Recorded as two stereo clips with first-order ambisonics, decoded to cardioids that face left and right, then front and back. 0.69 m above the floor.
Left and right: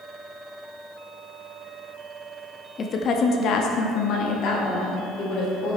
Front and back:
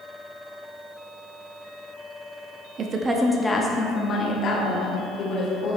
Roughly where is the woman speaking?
Behind left.